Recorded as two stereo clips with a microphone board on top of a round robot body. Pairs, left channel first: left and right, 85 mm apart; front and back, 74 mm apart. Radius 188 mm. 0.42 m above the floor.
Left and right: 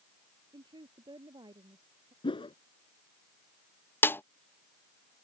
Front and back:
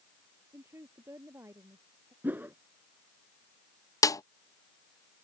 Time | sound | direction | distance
0.5 | a woman speaking | 125° right | ?
2.2 | a whoosh | 115° left | ?
4.0 | a snare drum | 30° left | ?